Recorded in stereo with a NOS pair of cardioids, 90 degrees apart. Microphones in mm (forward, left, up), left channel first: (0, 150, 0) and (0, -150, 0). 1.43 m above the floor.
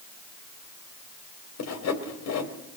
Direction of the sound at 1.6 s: 65° left.